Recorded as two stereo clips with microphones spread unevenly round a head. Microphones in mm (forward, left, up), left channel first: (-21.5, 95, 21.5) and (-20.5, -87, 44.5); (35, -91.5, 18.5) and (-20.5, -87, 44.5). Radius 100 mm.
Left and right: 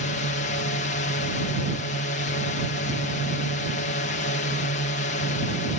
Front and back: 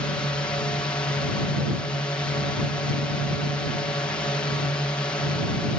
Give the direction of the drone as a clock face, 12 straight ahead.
10 o'clock.